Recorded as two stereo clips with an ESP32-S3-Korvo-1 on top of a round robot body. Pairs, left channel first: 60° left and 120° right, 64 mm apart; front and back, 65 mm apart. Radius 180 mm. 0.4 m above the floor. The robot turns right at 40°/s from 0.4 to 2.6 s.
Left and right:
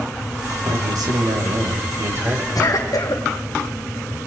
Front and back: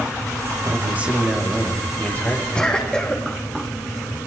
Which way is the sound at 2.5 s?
70° left.